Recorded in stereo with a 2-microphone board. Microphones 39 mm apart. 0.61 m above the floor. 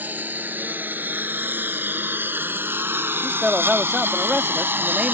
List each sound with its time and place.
0.0 s a lawn mower: 50° right (ahead or behind); by 5.1 s 60° right (ahead or behind)
3.2 s a man speaking: 25° right (ahead or behind)